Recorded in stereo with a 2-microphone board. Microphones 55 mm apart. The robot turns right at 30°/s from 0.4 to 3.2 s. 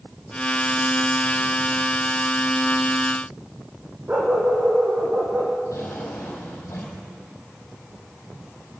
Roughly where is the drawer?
Left.